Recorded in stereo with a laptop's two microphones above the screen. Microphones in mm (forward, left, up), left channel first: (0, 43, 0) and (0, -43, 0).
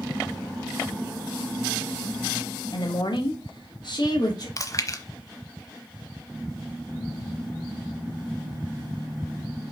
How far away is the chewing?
About 0.9 m.